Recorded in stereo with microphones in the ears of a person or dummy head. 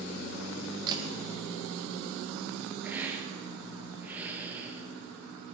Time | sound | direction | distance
0.9 | a camera shutter | 25° right (ahead or behind) | 2.5 m
2.8 | a hiss | 10° right (ahead or behind) | 1.9 m